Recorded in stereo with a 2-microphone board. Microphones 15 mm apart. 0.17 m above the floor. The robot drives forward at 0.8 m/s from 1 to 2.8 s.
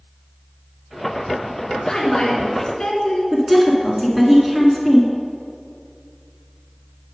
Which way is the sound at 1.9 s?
45° left (ahead or behind).